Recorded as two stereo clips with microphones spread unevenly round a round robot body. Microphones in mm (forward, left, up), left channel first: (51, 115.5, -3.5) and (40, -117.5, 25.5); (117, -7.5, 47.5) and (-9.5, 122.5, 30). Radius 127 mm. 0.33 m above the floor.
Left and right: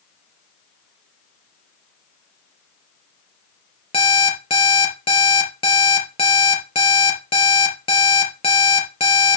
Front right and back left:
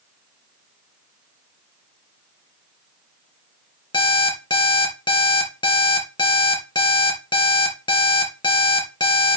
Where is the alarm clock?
20° left, 3 m.